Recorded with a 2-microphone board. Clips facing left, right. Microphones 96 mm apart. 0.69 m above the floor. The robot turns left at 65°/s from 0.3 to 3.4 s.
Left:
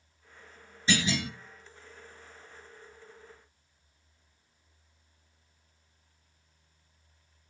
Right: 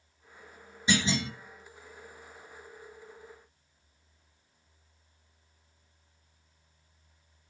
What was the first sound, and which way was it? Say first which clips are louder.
A clunk: right 1 dB; 15° right (ahead or behind).